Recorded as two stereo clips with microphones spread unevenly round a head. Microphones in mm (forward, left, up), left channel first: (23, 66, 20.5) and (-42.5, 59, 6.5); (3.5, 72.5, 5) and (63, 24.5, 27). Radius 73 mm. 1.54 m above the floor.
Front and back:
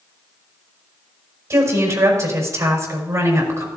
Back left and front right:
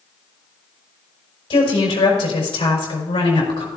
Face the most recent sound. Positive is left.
turn(degrees=140)